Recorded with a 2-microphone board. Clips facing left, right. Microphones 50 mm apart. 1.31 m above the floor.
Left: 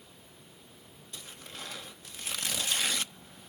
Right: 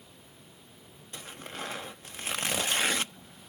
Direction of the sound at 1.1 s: 45° right (ahead or behind).